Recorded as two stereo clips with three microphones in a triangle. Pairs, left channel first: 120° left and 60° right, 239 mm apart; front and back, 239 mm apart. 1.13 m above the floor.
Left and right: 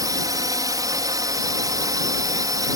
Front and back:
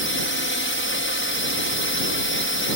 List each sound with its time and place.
0.0 s a drone: 15° left